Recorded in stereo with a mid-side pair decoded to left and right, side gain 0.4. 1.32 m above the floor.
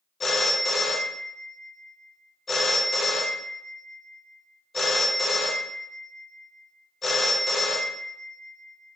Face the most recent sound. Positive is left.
turn(degrees=40)